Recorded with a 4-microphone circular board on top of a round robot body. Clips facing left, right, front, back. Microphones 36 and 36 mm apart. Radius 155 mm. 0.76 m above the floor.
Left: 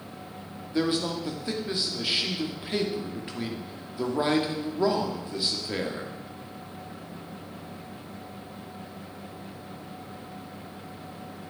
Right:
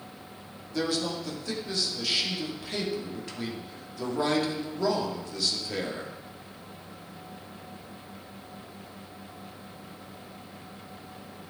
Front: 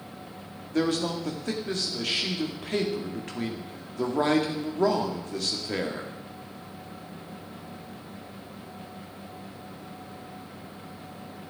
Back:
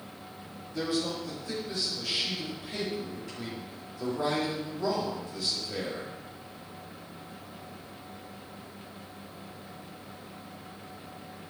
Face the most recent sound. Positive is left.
turn(degrees=25)